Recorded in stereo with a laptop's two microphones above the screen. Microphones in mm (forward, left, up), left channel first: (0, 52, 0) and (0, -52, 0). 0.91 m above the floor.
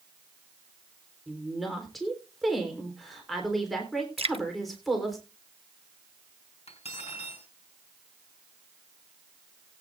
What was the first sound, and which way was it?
A woman speaking, centre (ahead or behind).